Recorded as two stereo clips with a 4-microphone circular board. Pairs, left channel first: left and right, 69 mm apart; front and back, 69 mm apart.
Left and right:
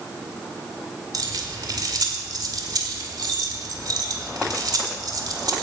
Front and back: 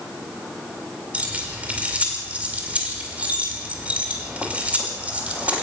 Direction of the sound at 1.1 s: 110° right.